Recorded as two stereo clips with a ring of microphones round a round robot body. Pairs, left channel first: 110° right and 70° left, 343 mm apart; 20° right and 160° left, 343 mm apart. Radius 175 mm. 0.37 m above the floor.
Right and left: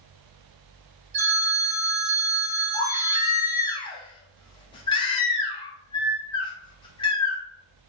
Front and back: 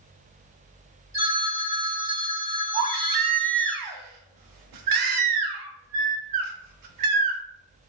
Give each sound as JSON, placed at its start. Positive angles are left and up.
{"t": 1.1, "sound": "a phone ringing", "azimuth_deg": 75, "distance_m": 1.6}
{"t": 2.7, "sound": "a baby crying", "azimuth_deg": 170, "distance_m": 0.5}